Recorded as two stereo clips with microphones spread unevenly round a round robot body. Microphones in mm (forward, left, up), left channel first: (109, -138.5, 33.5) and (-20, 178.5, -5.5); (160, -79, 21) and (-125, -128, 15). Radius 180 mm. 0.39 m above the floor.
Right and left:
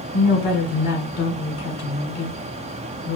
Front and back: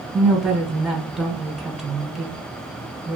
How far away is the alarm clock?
No alarm clock in this recording.